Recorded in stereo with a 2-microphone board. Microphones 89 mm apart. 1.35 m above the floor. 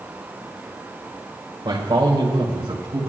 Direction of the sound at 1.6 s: 65° right (ahead or behind).